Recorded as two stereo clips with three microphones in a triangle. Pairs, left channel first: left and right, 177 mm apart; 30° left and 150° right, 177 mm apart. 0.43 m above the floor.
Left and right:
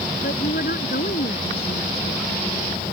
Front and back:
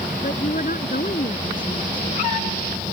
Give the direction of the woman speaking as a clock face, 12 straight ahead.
10 o'clock.